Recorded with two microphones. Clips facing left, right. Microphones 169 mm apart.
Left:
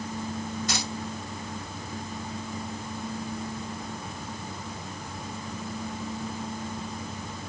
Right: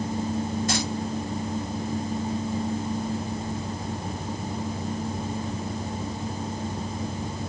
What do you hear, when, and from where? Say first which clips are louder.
0.7 s keys jangling: right 6 dB; 50° right (ahead or behind), 6 m